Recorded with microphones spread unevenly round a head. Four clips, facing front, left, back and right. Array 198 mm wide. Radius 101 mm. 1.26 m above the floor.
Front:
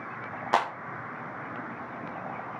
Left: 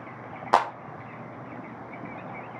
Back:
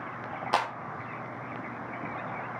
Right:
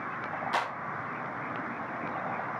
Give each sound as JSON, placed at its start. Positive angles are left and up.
{"t": 0.5, "sound": "a clap", "azimuth_deg": 80, "distance_m": 0.9}